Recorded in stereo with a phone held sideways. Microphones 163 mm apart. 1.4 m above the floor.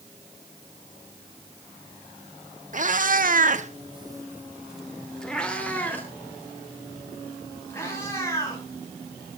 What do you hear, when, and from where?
2.7 s a cat meowing: 50° right (ahead or behind), 1.6 m; by 8.6 s 15° left (ahead or behind), 7 m